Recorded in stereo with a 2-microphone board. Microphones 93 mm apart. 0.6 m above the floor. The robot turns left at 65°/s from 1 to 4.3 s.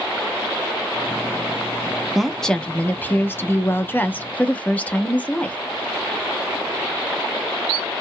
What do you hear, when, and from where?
2.1 s a woman speaking: centre (ahead or behind), 0.6 m; by 5.6 s 15° left (ahead or behind), 0.6 m